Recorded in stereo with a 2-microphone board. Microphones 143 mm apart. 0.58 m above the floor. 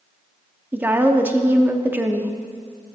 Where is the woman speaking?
15° right (ahead or behind), 0.6 m.